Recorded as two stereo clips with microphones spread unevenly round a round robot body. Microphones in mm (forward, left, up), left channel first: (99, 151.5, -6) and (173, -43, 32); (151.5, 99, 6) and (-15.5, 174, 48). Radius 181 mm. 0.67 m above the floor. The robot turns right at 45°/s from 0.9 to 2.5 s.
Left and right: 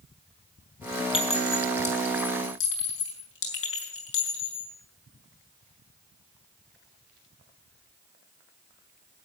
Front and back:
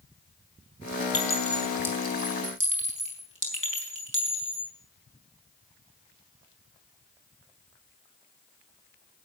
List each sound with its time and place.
1.1 s a clink: 45° left, 4.5 m; by 4.7 s 105° left, 4.5 m